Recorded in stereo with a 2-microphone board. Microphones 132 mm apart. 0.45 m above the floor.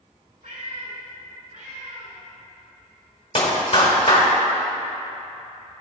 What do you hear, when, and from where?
0.4 s a cat meowing: 80° right, 2.5 m; by 2.2 s 75° right (ahead or behind), 3.5 m
3.4 s a clap: 50° left (ahead or behind), 1.5 m